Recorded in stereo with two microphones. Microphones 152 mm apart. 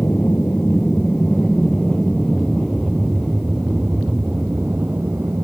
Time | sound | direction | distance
0.0 | an aircraft | 15° left (ahead or behind) | ?